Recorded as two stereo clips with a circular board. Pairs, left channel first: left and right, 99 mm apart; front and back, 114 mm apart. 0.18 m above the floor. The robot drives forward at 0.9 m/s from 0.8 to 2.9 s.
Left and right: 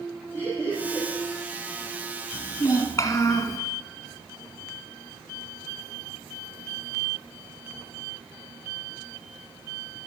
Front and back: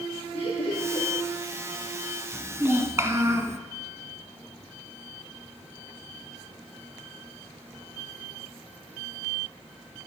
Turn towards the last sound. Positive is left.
turn(degrees=130)